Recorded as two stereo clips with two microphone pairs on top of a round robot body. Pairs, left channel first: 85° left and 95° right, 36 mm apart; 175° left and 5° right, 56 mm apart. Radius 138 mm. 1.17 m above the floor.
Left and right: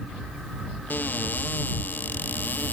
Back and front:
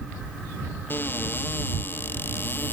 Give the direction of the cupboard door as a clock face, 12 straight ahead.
8 o'clock.